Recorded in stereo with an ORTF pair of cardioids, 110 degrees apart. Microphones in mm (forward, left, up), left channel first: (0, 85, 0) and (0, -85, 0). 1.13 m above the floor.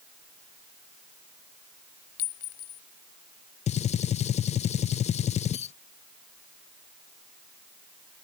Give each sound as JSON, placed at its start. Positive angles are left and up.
{"t": 2.2, "sound": "a clink", "azimuth_deg": 65}
{"t": 3.7, "sound": "a gunshot", "azimuth_deg": 40}